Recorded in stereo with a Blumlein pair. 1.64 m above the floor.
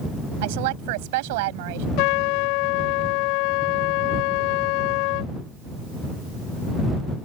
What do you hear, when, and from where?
0.4 s a woman speaking: 50° right
2.0 s a trumpet: 45° left